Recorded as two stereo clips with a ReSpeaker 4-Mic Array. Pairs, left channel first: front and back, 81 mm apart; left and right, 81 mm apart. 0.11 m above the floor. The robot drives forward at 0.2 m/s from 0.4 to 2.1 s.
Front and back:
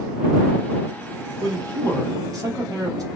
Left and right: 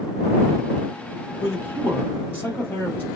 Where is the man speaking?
145° left, 2.5 m; by 3.1 s 150° left, 2.5 m.